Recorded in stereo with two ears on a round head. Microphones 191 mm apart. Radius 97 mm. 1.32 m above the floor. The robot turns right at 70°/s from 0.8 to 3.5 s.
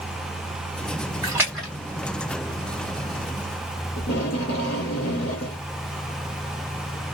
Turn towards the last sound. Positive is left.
turn(degrees=45)  # may be behind; listen again after turning